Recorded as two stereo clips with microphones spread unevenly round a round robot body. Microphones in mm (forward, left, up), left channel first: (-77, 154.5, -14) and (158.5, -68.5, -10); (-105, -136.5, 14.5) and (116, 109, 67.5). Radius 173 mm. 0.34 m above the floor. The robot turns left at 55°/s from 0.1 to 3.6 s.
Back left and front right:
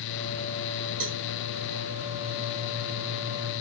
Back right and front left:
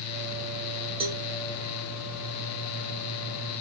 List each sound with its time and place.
1.0 s a cowbell: 30° right, 0.9 m; by 1.2 s 45° right, 0.9 m